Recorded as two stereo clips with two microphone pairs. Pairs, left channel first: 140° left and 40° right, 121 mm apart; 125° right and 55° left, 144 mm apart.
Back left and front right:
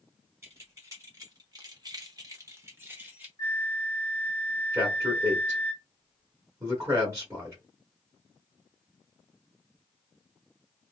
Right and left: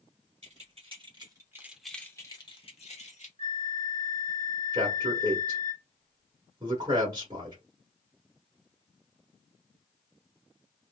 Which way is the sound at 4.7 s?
15° left.